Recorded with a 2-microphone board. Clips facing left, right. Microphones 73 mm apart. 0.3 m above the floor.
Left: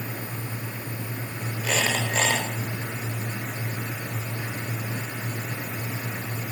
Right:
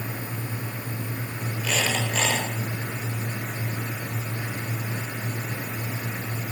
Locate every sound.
1.6 s a squeak: 35° left (ahead or behind), 4 m